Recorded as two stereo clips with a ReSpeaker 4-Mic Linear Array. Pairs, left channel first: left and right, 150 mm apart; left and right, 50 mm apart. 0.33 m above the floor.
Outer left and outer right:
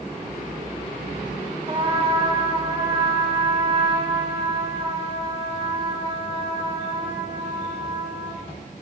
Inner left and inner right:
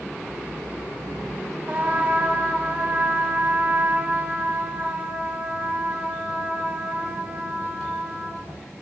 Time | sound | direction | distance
1.7 | a trumpet | 40° right (ahead or behind) | 1.1 m